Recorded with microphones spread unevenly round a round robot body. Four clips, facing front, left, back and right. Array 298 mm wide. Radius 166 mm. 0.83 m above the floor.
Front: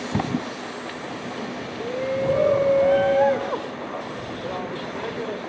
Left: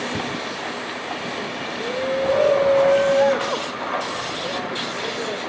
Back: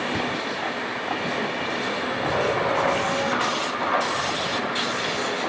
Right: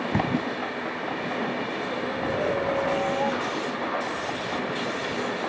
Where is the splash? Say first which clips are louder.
Right 2 dB, front 1 dB; 35° right.